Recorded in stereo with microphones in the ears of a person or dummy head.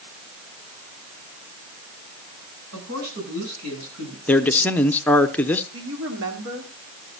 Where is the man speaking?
5° left (ahead or behind), 0.6 m.